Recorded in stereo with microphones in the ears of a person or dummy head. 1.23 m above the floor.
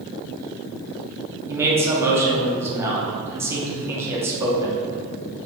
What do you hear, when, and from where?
1.5 s a man speaking: 15° right (ahead or behind), 0.7 m